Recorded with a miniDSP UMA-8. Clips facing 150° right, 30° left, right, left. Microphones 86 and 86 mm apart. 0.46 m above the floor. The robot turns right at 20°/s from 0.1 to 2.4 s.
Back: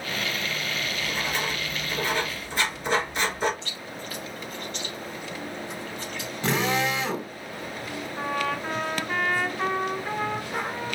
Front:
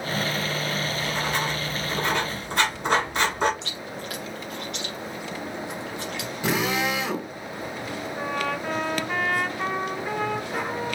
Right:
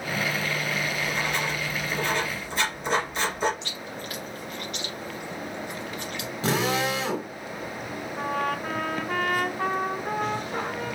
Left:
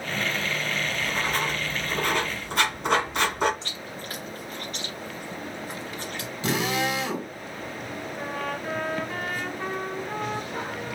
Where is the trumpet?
60° right, 1.2 m.